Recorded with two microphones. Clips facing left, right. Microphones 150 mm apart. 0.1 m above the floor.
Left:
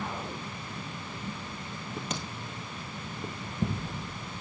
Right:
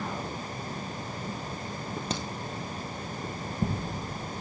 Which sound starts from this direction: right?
A crack, at 2.1 s.